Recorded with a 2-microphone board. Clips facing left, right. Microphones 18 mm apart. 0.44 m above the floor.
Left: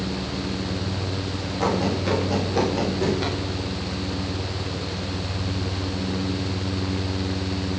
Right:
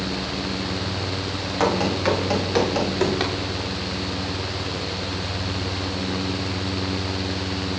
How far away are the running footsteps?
About 8.5 m.